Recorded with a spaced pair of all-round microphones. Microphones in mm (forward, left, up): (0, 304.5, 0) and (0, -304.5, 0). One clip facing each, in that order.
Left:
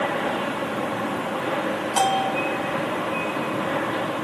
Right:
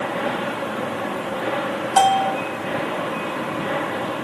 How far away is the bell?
About 1.6 m.